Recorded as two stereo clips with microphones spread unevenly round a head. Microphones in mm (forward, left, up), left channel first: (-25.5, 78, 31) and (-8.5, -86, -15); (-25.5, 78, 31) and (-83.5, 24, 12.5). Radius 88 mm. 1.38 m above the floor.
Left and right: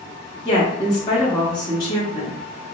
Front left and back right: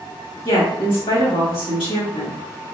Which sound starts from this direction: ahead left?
A woman speaking, at 0.5 s.